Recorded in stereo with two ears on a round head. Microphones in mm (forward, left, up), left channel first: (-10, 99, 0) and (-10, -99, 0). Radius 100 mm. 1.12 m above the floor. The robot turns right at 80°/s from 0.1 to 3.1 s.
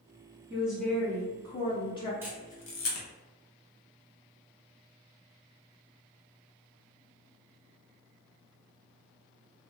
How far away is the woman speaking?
About 0.5 m.